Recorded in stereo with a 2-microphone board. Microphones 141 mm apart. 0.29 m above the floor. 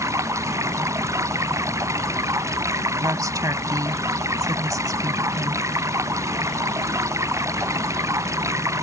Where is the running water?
20° right (ahead or behind).